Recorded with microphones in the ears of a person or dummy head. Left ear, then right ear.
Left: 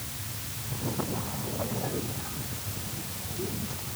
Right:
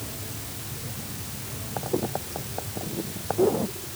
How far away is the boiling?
I don't hear boiling.